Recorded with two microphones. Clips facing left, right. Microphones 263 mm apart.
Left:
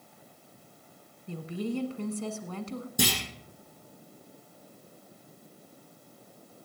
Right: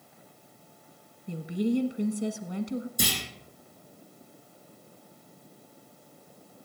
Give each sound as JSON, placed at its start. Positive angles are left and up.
{"t": 1.3, "sound": "a woman speaking", "side_deg": -15, "distance_m": 1.1}
{"t": 3.0, "sound": "a clunk", "side_deg": 75, "distance_m": 5.5}